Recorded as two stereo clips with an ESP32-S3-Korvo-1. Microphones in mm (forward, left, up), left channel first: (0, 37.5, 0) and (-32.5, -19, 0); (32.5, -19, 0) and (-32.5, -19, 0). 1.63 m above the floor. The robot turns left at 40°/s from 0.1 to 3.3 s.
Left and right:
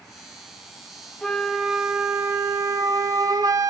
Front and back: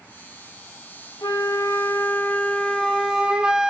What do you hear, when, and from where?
1.2 s a flute: 20° right, 1.0 m; by 3.7 s 105° right, 1.0 m